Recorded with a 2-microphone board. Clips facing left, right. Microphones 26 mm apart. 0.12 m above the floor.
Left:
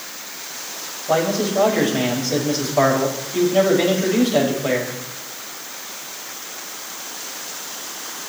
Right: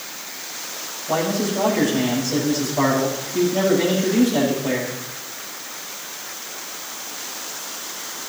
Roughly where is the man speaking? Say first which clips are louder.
Left 3 dB; left.